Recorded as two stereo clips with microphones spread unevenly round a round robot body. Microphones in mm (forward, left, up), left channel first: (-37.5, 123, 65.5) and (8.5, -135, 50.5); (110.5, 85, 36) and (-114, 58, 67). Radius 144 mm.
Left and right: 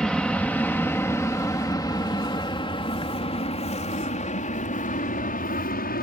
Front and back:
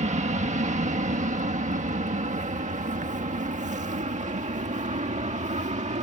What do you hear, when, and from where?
0.0 s an aircraft: 170° right; by 6.0 s 140° left